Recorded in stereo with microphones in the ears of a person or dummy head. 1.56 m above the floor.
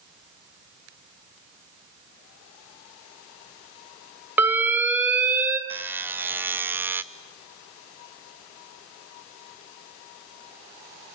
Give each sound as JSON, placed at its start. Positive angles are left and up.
{"t": 4.4, "sound": "an alarm", "side_deg": -10, "distance_m": 1.6}
{"t": 5.7, "sound": "a buzzer", "side_deg": -10, "distance_m": 0.6}